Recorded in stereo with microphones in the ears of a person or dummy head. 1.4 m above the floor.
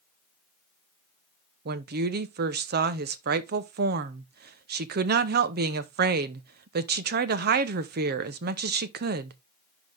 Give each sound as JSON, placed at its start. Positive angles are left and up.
{"t": 1.6, "sound": "a woman speaking", "side_deg": -55, "distance_m": 0.7}